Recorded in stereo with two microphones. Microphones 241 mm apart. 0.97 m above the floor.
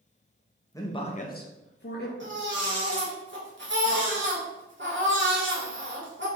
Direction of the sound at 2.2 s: 50° right (ahead or behind).